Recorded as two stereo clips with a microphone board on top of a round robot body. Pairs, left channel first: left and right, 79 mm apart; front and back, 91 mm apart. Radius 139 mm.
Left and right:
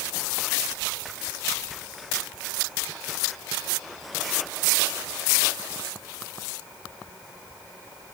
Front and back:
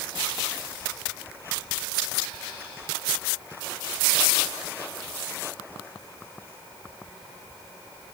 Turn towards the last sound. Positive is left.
No sound to turn to.